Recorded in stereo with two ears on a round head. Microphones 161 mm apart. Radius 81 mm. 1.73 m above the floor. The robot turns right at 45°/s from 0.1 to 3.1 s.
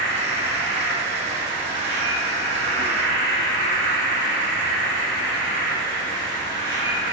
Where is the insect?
100° right, 1.6 m; by 7.1 s 35° left, 1.6 m.